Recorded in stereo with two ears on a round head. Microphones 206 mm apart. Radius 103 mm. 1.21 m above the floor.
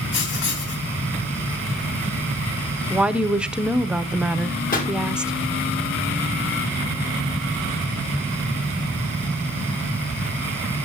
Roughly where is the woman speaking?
Centre.